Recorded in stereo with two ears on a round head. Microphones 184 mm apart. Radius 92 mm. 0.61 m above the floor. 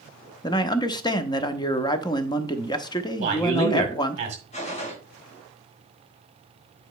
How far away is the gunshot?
About 3 m.